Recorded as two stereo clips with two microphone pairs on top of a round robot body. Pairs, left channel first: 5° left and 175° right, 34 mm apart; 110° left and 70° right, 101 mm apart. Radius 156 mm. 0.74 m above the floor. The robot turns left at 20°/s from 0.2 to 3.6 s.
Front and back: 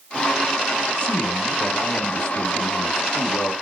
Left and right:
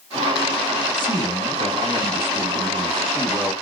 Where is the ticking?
No ticking in this recording.